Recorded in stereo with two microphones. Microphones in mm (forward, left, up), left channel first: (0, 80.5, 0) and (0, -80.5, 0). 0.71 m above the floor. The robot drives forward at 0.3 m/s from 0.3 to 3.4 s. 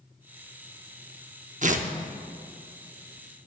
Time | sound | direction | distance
1.6 | tearing paper | 50° right (ahead or behind) | 0.7 m